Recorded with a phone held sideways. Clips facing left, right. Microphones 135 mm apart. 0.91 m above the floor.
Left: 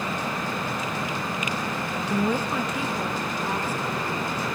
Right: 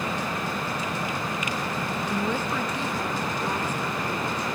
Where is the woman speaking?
10° left (ahead or behind), 0.5 m.